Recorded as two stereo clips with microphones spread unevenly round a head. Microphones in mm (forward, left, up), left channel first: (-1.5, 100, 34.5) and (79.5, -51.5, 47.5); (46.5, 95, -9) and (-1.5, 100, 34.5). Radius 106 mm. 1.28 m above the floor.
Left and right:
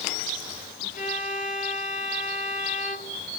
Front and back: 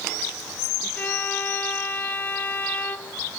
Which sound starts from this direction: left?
A violin, at 0.9 s.